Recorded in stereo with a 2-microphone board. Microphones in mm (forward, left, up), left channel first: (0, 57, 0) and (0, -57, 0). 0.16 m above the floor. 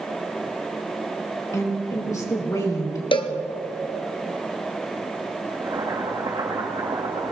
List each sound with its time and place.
1.5 s a woman speaking: 30° left (ahead or behind), 3.5 m
3.1 s a cowbell: 45° left (ahead or behind), 1.1 m
5.5 s boiling: 35° right (ahead or behind), 6 m